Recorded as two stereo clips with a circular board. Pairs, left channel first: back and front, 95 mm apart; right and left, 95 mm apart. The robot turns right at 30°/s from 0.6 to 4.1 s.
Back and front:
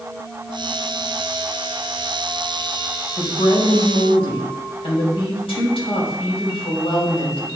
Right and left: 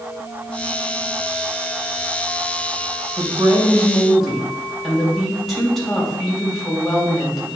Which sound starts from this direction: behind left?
A woman speaking, at 3.2 s.